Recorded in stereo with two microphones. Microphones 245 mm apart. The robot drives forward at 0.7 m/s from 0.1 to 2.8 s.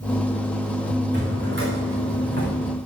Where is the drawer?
50° right (ahead or behind), 6 m; by 2.6 s 55° right (ahead or behind), 5.5 m.